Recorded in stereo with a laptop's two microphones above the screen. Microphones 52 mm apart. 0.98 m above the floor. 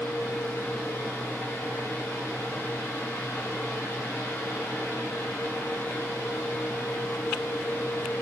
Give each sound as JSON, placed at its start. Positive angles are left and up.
{"t": 0.0, "sound": "a fan", "side_deg": 55, "distance_m": 1.6}